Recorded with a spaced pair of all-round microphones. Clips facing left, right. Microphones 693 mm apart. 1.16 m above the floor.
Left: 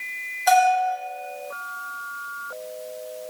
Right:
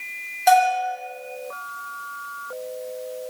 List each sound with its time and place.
0.5 s a bell: 55° right (ahead or behind), 1.2 m